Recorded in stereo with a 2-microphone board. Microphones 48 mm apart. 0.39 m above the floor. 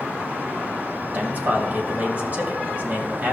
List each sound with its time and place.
1.1 s a man speaking: 35° right (ahead or behind), 2 m